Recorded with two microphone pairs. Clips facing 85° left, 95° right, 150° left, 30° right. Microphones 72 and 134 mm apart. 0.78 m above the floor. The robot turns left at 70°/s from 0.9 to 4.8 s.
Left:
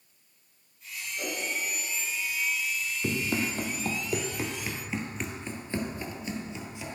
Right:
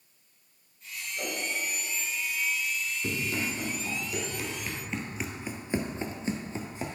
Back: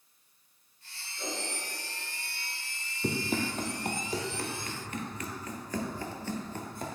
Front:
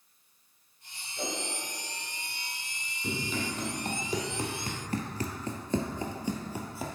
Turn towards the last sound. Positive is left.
turn(degrees=-120)